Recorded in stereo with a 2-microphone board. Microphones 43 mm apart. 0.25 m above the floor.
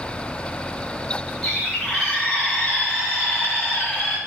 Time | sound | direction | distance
1.4 | a bird | 10° left (ahead or behind) | 4 m